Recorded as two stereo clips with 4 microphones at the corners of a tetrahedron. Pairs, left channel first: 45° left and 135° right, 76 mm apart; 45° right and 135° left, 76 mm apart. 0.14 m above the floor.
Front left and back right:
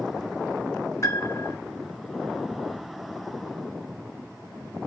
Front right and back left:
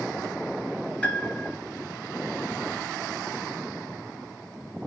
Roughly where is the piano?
Ahead left.